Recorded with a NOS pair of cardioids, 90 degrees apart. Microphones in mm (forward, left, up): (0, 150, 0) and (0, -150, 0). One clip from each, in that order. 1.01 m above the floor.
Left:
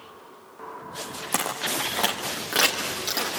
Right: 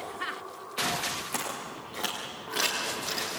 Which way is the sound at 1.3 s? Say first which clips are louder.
Left 8 dB; 60° left.